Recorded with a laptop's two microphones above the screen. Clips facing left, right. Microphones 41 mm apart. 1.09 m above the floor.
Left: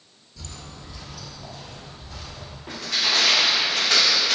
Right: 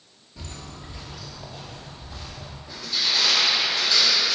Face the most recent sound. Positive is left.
turn(degrees=60)  # may be behind; listen again after turning